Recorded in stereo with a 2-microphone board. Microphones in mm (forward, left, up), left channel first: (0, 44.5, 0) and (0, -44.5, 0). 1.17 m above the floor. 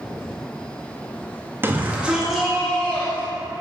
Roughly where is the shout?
Right.